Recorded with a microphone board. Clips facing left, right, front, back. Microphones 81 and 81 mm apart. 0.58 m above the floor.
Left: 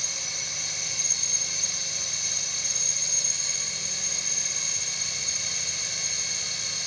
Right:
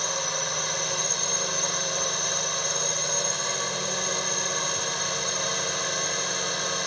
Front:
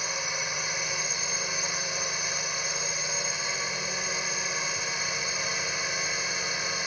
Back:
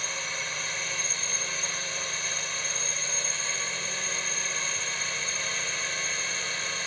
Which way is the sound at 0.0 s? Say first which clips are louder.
Right 11 dB, front 2 dB; 80° right.